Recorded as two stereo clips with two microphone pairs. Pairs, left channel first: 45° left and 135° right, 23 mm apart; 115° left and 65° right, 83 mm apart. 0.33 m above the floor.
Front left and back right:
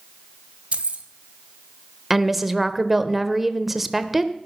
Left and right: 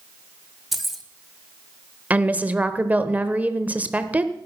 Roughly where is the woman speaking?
Right.